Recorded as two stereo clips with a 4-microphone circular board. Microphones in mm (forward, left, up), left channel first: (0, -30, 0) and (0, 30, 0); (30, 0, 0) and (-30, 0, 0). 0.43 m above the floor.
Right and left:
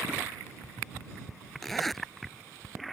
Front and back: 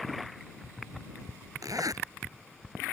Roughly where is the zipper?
Behind.